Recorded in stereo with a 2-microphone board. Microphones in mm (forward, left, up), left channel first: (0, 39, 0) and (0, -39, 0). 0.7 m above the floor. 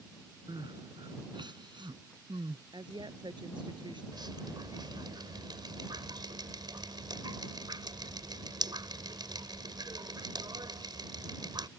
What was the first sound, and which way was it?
Crying, 85° right.